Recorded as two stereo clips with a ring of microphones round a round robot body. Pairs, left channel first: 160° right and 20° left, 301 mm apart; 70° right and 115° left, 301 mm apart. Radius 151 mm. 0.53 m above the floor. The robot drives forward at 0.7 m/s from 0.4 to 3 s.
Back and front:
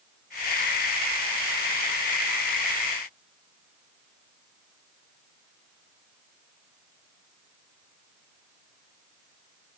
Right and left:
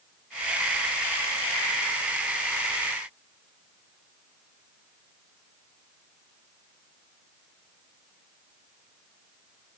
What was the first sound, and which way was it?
Only background noise.